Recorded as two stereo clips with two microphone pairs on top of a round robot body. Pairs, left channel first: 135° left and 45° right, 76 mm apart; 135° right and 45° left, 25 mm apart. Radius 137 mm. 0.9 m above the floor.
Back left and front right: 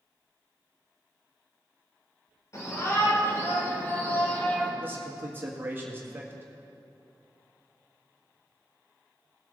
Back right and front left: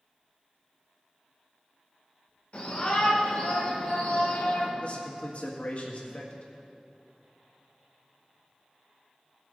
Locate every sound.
2.5 s a shout: 175° right, 4 m; by 4.7 s 145° right, 3 m
4.8 s a man speaking: 100° right, 1.5 m